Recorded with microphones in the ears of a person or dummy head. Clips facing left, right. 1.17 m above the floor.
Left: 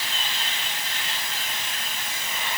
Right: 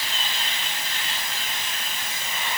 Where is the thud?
I don't hear a thud.